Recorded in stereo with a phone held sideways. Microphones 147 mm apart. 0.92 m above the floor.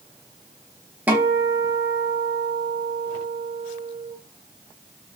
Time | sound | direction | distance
1.1 | a guitar | 10° right (ahead or behind) | 0.8 m